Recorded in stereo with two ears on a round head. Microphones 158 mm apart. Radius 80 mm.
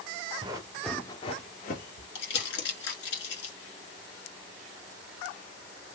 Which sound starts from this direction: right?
Running footsteps, at 0.4 s.